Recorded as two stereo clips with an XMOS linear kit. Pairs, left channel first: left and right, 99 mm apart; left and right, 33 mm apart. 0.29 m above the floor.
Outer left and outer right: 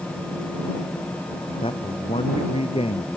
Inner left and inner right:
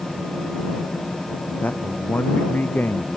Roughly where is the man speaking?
Left.